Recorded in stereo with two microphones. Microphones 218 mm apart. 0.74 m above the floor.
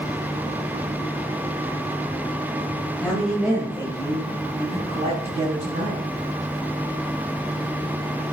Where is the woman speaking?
5° left (ahead or behind), 3 m; by 6.0 s 45° right (ahead or behind), 6 m.